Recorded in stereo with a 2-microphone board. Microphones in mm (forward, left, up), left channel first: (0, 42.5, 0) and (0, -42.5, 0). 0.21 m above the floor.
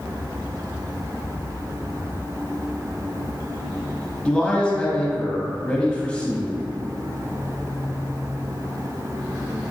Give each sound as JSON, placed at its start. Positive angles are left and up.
{"t": 4.2, "sound": "a man speaking", "side_deg": 10, "distance_m": 1.0}